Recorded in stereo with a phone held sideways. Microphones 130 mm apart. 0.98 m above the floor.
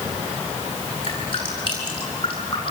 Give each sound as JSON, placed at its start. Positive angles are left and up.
{"t": 1.0, "sound": "dripping", "side_deg": 40, "distance_m": 9.0}